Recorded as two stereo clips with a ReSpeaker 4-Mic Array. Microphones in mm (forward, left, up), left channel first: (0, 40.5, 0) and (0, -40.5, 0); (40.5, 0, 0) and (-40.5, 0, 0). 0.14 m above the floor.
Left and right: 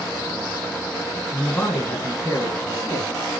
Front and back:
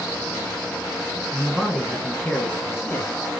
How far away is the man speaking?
About 1.6 m.